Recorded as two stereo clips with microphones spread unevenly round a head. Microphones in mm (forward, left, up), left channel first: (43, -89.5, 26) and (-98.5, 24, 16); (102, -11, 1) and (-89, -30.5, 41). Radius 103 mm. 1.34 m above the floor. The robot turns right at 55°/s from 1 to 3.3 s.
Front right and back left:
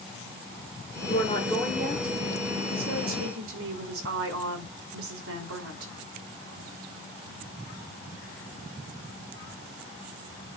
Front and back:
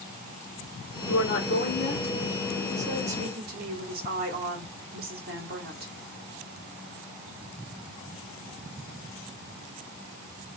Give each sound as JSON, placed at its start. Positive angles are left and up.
{"t": 1.0, "sound": "a woman speaking", "azimuth_deg": 15, "distance_m": 3.0}